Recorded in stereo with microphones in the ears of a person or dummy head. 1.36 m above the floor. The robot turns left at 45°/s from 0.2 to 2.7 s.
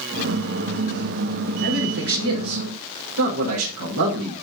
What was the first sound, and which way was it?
A man speaking, 50° right.